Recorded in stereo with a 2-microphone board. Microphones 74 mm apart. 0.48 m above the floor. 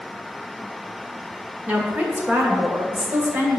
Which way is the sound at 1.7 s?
25° right (ahead or behind).